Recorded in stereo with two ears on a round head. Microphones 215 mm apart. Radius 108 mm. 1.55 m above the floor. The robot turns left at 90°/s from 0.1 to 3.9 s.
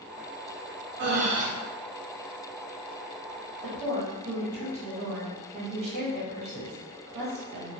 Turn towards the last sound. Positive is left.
turn(degrees=-75)  # may be behind; listen again after turning